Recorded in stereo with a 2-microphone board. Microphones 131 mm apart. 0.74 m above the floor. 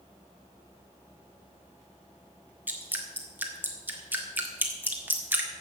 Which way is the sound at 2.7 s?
15° right (ahead or behind).